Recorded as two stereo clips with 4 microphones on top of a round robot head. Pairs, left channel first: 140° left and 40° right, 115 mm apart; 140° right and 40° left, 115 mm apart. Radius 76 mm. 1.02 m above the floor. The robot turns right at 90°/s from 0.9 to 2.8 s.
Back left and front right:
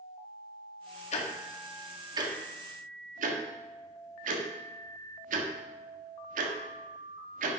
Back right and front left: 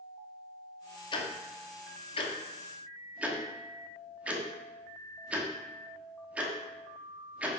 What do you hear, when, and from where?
1.1 s ticking: 170° left, 1.4 m; by 7.6 s 40° right, 1.4 m